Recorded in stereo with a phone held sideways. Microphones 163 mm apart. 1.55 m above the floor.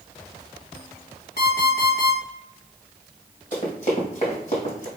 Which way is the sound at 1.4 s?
70° left (ahead or behind).